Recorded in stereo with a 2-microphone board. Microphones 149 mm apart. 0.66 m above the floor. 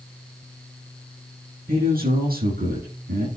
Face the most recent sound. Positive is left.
turn(degrees=-85)